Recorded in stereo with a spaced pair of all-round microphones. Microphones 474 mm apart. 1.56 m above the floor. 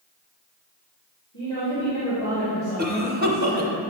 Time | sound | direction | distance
1.3 | a woman speaking | 35° left (ahead or behind) | 2.5 m
2.8 | a cough | 20° right (ahead or behind) | 0.8 m